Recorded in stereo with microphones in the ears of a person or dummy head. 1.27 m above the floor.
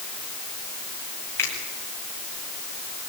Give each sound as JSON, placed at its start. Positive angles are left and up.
{"t": 1.4, "sound": "a finger snap", "side_deg": 15, "distance_m": 8.5}